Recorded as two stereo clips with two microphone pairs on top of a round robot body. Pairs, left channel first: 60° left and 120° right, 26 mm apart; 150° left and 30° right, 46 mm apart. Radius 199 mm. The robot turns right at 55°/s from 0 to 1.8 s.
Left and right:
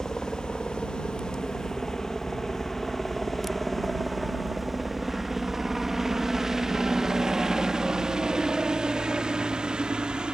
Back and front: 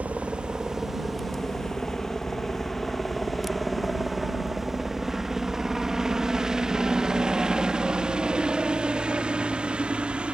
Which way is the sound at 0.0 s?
Straight ahead.